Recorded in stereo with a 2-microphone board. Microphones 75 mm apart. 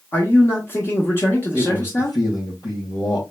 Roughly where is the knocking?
I don't hear knocking.